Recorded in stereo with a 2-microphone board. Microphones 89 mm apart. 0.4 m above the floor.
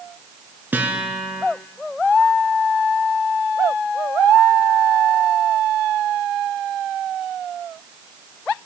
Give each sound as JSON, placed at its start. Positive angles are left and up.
{"t": 0.7, "sound": "a guitar", "side_deg": -25, "distance_m": 2.5}